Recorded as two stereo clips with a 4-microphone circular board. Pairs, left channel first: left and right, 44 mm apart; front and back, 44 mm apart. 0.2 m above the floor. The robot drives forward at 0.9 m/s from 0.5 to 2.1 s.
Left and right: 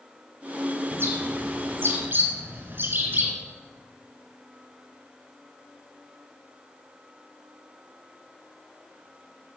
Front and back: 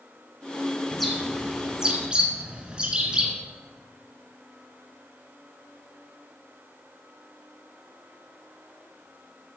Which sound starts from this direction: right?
A bird, at 0.9 s.